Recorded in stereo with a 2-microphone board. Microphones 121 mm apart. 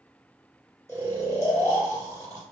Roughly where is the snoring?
Right.